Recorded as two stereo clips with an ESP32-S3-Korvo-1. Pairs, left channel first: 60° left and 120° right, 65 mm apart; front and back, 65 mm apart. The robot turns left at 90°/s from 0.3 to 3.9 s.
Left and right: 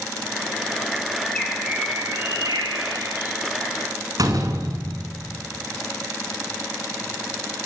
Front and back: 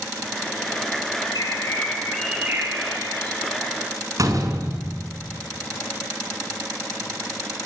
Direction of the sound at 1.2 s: 5° right.